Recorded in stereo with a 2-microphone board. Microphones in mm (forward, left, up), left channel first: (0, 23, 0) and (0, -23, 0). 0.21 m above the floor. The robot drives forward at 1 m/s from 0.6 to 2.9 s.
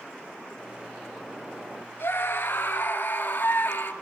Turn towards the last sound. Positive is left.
turn(degrees=40)  # may be behind; listen again after turning